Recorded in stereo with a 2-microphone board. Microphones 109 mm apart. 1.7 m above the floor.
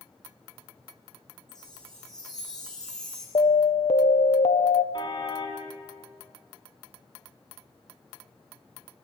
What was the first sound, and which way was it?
A chime, 5° left (ahead or behind).